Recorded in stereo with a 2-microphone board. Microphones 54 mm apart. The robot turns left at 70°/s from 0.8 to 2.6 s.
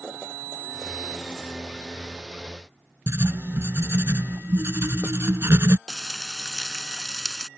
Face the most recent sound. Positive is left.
turn(degrees=15)  # may be behind; listen again after turning